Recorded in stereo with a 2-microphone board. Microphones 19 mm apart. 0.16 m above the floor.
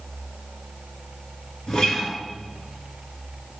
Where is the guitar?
55° left (ahead or behind), 1.5 m.